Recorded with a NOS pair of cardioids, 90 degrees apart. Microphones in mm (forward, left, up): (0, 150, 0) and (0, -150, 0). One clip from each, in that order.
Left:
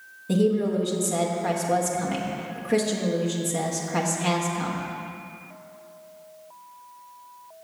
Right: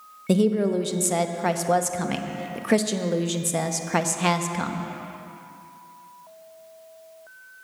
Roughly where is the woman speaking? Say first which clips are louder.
Right 1 dB; ahead right.